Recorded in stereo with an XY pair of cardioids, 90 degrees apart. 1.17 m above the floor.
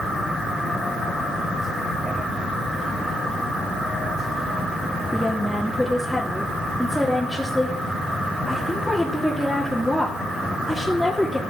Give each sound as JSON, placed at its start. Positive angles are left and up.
{"t": 5.1, "sound": "a woman speaking", "azimuth_deg": 0, "distance_m": 3.0}